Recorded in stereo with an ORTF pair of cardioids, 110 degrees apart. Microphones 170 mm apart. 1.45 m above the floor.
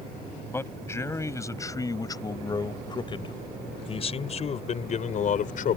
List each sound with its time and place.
0.5 s a man speaking: 15° left; by 5.8 s 55° left